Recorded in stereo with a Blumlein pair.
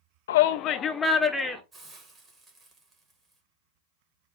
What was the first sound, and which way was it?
A shout, 60° left.